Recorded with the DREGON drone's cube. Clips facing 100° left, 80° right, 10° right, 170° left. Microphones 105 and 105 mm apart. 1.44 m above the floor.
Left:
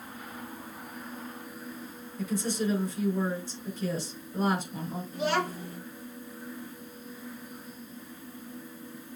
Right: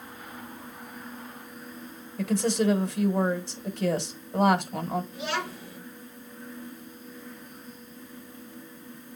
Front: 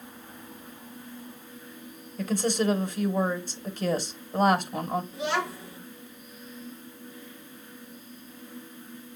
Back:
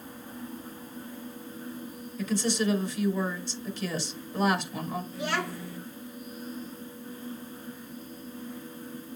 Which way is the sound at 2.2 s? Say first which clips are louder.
Right 5 dB, front 2 dB; 55° right.